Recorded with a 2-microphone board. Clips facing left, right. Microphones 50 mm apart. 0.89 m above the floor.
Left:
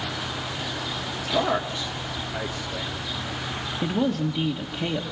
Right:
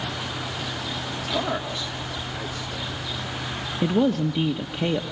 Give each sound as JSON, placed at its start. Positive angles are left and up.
{"t": 1.3, "sound": "a man speaking", "side_deg": 10, "distance_m": 1.4}
{"t": 3.8, "sound": "a woman speaking", "side_deg": -20, "distance_m": 0.9}